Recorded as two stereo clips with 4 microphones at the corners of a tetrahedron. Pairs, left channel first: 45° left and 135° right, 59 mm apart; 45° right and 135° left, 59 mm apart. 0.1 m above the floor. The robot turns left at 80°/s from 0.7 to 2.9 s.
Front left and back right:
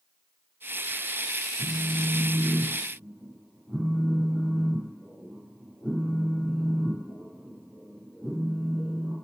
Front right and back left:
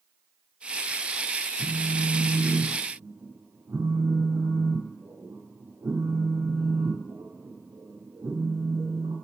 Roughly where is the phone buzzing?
Behind right.